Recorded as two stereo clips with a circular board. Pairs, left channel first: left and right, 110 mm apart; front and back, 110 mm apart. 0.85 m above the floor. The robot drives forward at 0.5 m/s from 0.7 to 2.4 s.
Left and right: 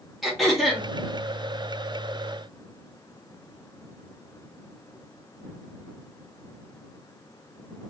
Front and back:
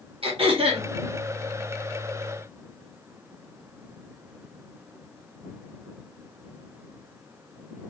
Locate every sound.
0.2 s throat clearing: straight behind, 1.6 m